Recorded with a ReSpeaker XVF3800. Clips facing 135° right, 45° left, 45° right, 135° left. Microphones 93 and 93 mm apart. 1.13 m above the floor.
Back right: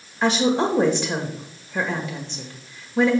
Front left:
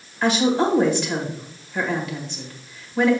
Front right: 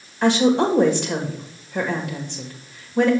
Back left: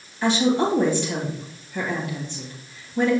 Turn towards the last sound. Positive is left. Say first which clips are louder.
# front left 1 dB, front right 3 dB
turn(degrees=-75)